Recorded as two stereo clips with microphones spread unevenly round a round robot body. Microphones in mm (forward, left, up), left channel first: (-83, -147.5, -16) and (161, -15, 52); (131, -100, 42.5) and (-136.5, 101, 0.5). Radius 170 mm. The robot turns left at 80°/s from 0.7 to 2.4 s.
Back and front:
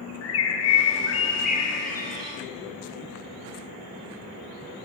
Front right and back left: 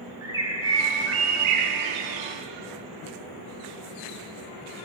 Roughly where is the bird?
Behind right.